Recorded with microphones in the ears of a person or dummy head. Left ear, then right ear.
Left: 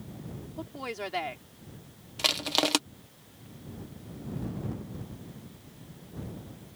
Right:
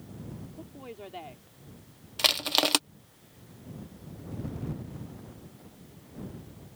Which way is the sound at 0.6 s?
60° left (ahead or behind).